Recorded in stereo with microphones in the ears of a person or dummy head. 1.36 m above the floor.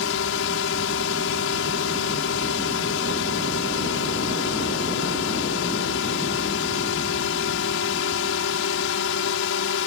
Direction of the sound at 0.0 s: 65° left (ahead or behind).